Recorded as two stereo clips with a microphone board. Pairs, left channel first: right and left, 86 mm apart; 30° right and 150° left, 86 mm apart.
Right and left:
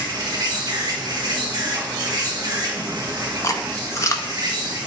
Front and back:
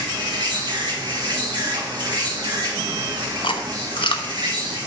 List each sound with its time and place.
0.0 s an insect: 125° left, 1.9 m
3.4 s chewing: 35° right, 0.8 m